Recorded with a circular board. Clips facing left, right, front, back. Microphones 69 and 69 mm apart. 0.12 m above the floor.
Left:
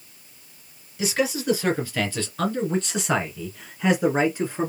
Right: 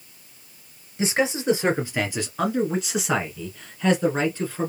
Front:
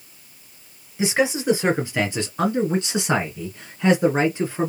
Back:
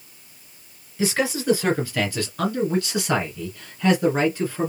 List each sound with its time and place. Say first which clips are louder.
1.0 s a man speaking: right 1 dB, front 2 dB; 55° right, 2 m; by 4.7 s 45° left, 1.8 m